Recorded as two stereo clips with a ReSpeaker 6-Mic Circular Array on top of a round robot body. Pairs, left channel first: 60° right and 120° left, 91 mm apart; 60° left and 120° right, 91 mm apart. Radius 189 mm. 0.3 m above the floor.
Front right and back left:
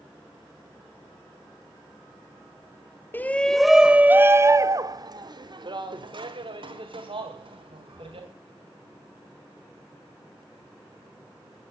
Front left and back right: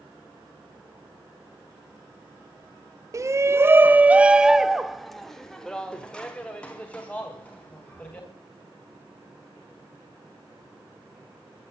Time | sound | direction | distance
3.1 | a shout | 115° right | 1.0 m